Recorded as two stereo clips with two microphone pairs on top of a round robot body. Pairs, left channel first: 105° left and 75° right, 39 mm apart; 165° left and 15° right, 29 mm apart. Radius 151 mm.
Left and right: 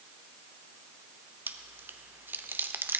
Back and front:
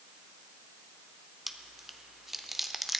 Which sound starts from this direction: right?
Chewing, at 1.5 s.